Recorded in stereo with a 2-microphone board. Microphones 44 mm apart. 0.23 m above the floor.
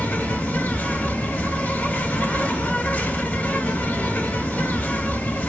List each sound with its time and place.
0.0 s an insect: 40° left (ahead or behind), 1.1 m